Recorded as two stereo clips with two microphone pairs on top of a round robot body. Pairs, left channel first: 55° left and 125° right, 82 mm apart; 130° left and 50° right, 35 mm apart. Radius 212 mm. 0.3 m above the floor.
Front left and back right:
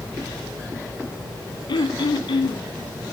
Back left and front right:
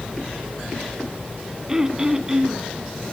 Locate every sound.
1.7 s throat clearing: 25° left, 1.0 m